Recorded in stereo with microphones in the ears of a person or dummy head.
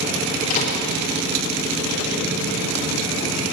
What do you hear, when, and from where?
0.5 s a microwave: 45° left (ahead or behind), 2.0 m